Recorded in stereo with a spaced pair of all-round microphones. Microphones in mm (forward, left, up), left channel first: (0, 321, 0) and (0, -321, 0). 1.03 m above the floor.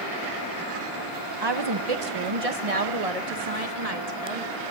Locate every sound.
1.4 s a woman speaking: 40° right (ahead or behind), 0.9 m; by 4.6 s 75° right (ahead or behind), 3 m